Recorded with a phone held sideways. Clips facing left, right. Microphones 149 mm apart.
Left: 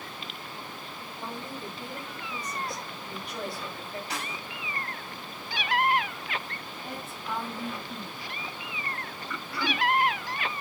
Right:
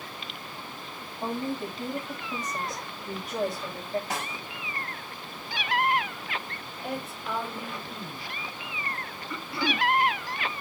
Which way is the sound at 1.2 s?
45° right (ahead or behind).